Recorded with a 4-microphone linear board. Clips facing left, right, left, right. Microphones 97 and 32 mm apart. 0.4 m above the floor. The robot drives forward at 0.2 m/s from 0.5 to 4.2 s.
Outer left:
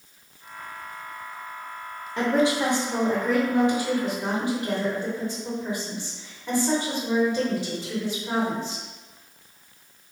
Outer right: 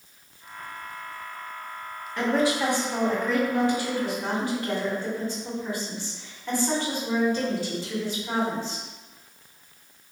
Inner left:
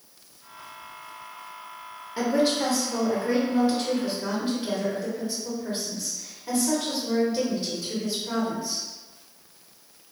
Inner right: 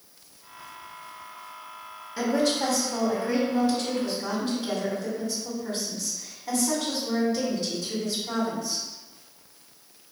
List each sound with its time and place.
2.2 s a woman speaking: 25° left (ahead or behind), 1.0 m; by 8.8 s 20° left (ahead or behind), 1.2 m